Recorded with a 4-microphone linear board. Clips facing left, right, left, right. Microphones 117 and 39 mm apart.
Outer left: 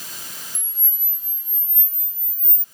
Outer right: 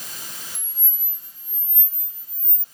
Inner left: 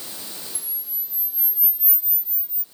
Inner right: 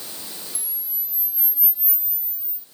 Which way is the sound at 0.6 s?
70° right (ahead or behind).